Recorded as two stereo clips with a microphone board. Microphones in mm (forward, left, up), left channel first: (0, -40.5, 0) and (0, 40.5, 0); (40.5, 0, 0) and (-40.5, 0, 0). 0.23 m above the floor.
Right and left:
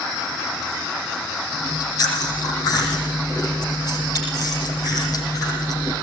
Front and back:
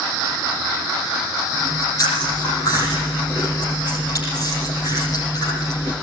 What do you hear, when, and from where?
1.5 s chewing: 45° right, 8 m